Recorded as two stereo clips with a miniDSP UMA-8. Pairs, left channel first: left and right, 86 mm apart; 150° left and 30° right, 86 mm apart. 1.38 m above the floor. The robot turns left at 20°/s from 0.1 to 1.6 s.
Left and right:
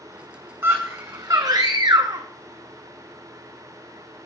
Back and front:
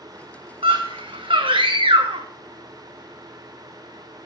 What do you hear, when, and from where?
0.6 s a scream: 25° right, 1.2 m; by 2.2 s 45° right, 1.2 m